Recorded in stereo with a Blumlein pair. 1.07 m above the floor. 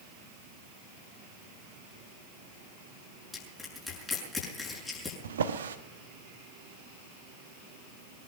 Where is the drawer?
65° right, 1.2 m.